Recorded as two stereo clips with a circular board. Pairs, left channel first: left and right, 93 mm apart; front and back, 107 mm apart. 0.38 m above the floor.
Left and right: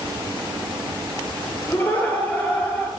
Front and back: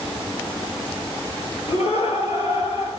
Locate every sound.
1.7 s laughter: 15° left, 5.5 m; by 2.9 s 20° left, 6.5 m